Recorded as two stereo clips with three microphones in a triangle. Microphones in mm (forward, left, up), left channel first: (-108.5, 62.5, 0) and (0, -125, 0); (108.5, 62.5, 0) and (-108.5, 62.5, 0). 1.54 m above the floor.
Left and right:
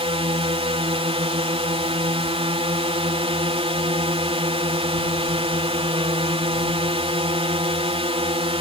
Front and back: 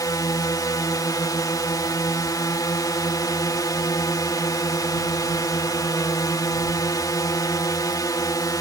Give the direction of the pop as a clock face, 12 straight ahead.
I don't hear a pop.